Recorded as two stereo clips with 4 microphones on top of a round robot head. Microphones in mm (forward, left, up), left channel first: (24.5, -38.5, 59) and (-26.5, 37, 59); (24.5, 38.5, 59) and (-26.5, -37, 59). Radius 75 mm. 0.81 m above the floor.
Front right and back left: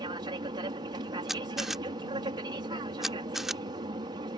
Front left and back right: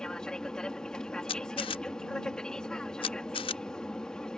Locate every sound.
0.0 s an aircraft: 135° left
1.3 s a camera shutter: 35° left